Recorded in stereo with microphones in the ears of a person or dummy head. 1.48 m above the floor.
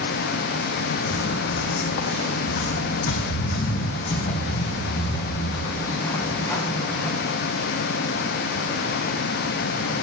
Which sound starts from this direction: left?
Footsteps, at 1.1 s.